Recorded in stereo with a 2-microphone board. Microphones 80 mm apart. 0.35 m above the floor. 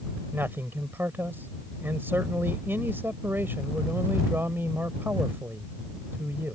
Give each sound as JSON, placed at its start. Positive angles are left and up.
{"t": 0.3, "sound": "a man speaking", "side_deg": -30}